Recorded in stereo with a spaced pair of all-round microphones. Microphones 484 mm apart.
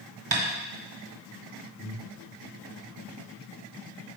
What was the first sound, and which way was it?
Tapping, 40° right (ahead or behind).